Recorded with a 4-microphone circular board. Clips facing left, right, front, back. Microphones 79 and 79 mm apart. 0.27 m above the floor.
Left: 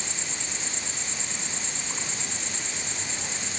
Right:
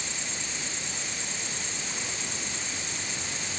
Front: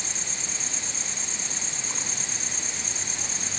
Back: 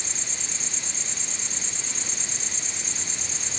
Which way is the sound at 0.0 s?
25° left.